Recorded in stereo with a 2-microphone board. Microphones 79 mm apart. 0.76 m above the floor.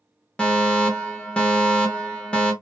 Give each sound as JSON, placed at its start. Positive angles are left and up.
{"t": 0.4, "sound": "a fire alarm", "side_deg": 15, "distance_m": 1.3}